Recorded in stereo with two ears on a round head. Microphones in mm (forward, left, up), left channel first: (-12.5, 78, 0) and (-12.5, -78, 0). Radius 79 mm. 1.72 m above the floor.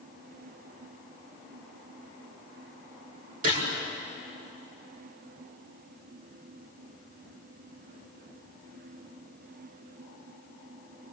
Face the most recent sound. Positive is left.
turn(degrees=-45)  # may be behind; listen again after turning